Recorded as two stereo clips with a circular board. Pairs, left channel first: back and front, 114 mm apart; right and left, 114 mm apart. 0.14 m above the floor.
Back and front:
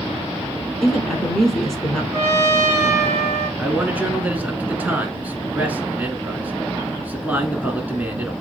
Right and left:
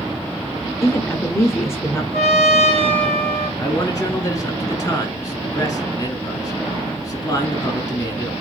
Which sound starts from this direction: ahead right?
A man speaking, at 3.6 s.